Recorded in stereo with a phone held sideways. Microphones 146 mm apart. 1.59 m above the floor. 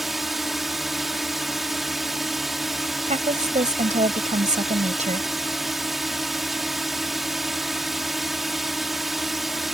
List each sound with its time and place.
0.0 s a drone: centre (ahead or behind)
3.1 s a woman speaking: 50° right (ahead or behind)